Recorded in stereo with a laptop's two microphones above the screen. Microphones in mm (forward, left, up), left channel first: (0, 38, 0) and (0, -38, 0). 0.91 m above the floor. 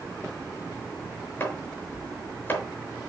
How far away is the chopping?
About 4.5 m.